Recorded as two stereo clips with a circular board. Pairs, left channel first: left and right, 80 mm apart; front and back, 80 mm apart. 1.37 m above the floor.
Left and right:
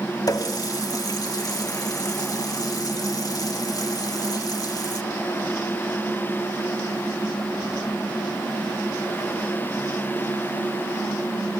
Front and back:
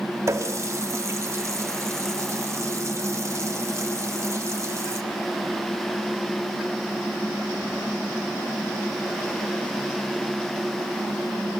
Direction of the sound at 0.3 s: 130° left.